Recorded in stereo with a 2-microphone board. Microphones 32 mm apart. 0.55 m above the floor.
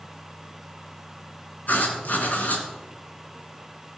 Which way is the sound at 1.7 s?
60° left (ahead or behind).